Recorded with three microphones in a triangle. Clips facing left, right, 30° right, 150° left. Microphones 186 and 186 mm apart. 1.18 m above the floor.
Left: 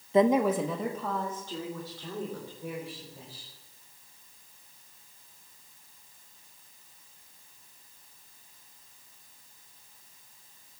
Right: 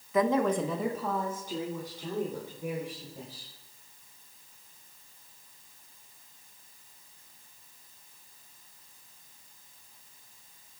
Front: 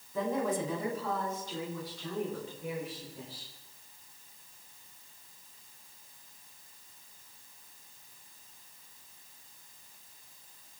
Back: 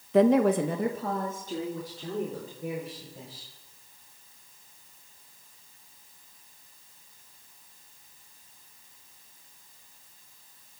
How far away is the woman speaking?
About 0.7 m.